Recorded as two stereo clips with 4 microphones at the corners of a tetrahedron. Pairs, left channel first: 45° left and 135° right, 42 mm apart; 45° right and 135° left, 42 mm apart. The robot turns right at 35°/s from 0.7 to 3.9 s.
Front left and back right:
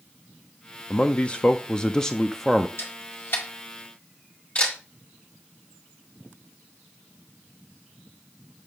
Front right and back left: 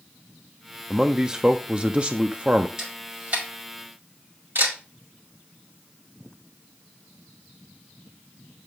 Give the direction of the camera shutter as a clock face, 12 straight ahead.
10 o'clock.